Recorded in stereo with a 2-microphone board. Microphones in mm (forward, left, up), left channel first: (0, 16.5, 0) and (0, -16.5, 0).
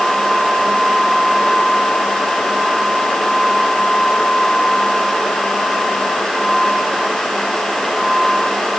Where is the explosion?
I don't hear an explosion.